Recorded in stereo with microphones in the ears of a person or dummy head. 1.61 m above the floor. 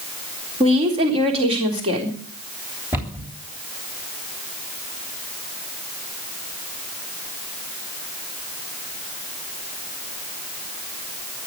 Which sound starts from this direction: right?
A woman speaking, at 0.6 s.